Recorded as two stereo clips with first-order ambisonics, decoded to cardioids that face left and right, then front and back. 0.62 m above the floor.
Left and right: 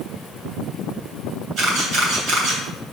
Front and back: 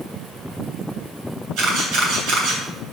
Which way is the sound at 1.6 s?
145° right.